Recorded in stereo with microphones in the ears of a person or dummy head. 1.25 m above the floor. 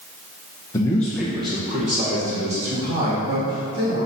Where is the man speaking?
30° left (ahead or behind), 0.7 m; by 4.1 s 60° right (ahead or behind), 3 m.